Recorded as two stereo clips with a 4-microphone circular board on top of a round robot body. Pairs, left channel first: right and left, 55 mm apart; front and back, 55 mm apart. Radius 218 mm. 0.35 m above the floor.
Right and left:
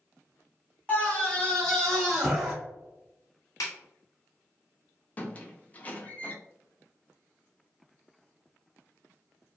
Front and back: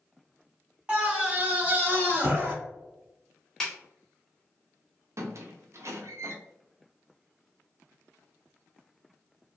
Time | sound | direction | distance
0.9 | a scream | 130° right | 1.6 m
3.6 | a snare drum | 80° right | 0.8 m
5.2 | a squeak | 150° right | 0.7 m